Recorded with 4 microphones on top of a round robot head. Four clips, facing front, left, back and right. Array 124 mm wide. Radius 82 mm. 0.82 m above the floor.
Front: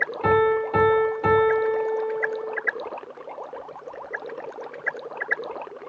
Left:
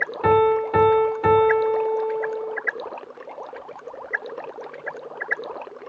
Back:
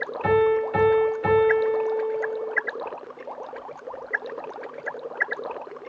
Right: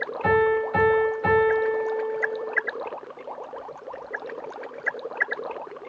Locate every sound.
0.2 s a piano: 70° left, 2.0 m